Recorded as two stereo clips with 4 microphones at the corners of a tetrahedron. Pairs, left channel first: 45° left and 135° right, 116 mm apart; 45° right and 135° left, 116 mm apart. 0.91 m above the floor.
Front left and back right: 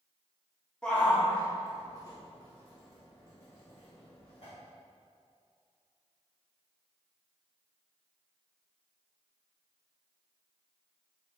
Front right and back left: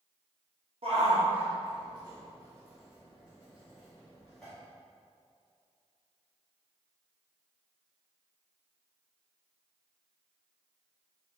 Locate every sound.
0.8 s a shout: 125° left, 1.6 m; by 4.5 s 40° left, 2 m